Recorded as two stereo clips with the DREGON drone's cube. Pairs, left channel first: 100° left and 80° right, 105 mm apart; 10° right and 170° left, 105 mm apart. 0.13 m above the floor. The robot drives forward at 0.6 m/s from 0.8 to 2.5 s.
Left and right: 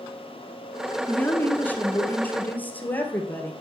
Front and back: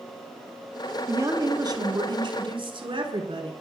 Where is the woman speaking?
150° left, 1.1 m; by 3.5 s 170° left, 1.7 m.